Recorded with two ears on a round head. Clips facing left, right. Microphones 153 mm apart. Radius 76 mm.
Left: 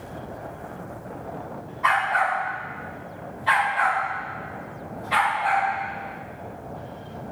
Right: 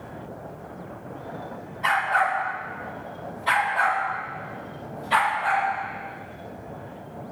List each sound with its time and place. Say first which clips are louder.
1.8 s a dog barking: left 1 dB; 35° right (ahead or behind), 1.7 m